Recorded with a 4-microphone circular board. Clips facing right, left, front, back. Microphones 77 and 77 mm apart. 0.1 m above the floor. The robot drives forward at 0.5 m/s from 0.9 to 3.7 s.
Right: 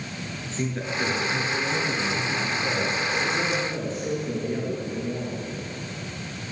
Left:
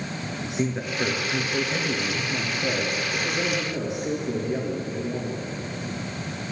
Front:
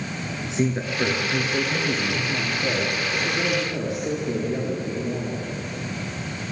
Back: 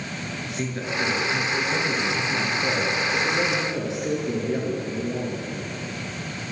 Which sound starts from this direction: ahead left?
A man speaking, at 0.4 s.